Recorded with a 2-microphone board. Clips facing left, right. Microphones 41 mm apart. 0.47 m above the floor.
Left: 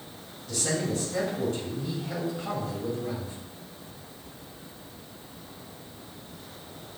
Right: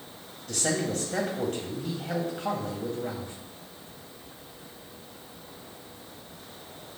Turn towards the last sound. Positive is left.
turn(degrees=-65)  # may be behind; listen again after turning